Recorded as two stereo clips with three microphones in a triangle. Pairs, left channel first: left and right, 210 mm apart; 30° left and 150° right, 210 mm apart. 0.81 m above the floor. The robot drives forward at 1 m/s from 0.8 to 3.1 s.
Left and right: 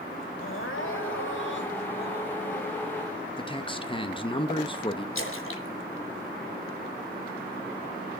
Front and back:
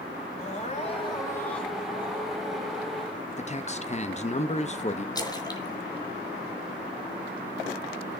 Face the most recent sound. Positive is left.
turn(degrees=100)